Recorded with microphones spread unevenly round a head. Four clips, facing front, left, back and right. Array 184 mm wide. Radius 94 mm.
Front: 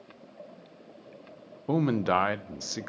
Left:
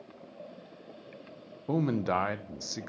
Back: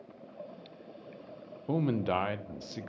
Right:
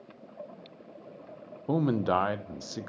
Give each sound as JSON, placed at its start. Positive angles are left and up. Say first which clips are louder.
{"t": 1.7, "sound": "a man speaking", "louder": "right 2 dB, front 4 dB", "azimuth_deg": -35, "distance_m": 0.6}